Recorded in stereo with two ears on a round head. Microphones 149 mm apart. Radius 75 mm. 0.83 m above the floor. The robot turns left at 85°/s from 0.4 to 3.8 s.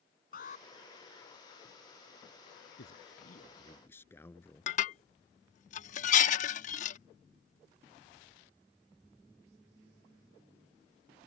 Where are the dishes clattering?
50° left (ahead or behind).